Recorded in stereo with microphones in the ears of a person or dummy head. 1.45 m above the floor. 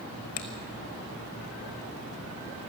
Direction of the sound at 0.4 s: 40° left (ahead or behind).